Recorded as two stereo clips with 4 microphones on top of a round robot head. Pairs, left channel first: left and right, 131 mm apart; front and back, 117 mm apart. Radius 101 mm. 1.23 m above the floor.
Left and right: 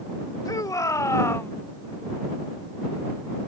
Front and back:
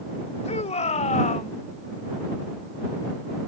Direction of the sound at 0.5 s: 25° left.